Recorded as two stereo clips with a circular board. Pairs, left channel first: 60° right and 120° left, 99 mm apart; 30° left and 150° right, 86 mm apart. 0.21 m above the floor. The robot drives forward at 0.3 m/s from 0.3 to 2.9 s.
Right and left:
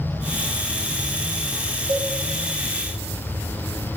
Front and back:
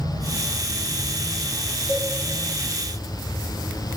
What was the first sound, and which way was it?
A cowbell, 85° left.